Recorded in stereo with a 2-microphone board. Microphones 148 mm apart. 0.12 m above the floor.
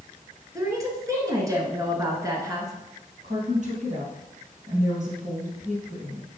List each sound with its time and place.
0.6 s a woman speaking: 25° right (ahead or behind), 1.5 m
3.2 s a woman speaking: 55° right (ahead or behind), 3 m